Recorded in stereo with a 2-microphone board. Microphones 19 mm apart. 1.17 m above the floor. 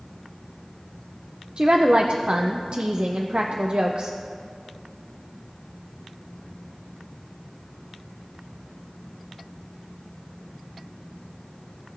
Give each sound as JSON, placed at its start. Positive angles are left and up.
{"t": 1.6, "sound": "a woman speaking", "side_deg": -60, "distance_m": 0.6}